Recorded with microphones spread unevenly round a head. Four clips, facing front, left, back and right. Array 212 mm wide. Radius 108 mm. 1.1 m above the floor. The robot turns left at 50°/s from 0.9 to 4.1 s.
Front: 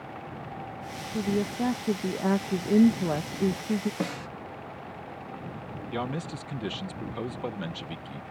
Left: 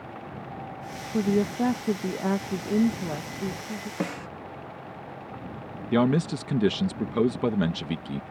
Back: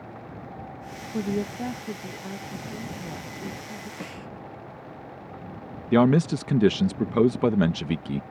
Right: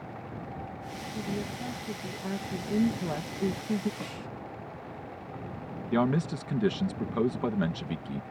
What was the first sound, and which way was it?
A woman speaking, 100° left.